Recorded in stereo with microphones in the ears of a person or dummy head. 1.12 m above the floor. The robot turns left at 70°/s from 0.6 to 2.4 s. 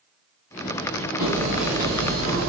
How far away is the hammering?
About 2 m.